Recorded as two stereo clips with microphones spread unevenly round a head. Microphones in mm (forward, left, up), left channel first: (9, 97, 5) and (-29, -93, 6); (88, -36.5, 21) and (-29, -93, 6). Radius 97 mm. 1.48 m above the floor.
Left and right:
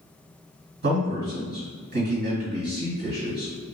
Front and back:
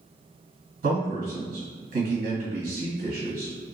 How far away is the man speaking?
About 1.8 m.